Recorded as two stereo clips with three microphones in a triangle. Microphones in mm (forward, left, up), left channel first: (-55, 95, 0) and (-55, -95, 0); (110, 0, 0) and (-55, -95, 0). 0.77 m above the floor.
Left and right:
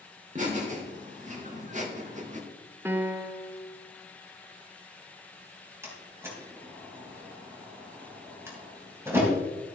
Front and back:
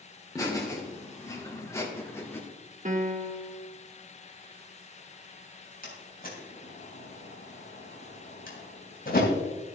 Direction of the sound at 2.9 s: 165° right.